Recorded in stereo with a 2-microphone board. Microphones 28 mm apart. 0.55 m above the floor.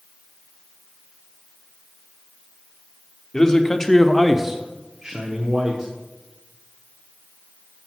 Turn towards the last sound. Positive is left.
turn(degrees=-35)  # may be behind; listen again after turning